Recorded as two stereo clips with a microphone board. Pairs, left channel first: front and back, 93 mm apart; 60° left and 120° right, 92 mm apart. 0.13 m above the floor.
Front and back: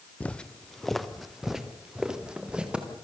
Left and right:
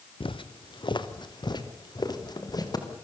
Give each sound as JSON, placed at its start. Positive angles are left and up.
{"t": 0.2, "sound": "footsteps", "azimuth_deg": 75, "distance_m": 1.5}